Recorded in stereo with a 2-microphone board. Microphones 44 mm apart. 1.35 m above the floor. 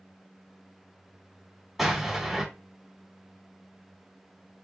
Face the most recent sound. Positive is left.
turn(degrees=-5)  # may be behind; listen again after turning